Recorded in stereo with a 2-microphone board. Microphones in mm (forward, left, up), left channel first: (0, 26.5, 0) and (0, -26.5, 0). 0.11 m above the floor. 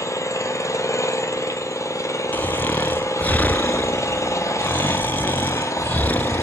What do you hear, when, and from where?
0.0 s an engine running: 70° left (ahead or behind), 1.4 m
2.3 s snoring: 30° left (ahead or behind), 0.6 m